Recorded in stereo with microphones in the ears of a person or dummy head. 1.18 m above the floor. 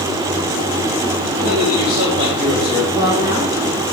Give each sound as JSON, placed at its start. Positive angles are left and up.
{"t": 1.4, "sound": "a man speaking", "side_deg": -15, "distance_m": 5.5}
{"t": 2.9, "sound": "a woman speaking", "side_deg": -20, "distance_m": 2.5}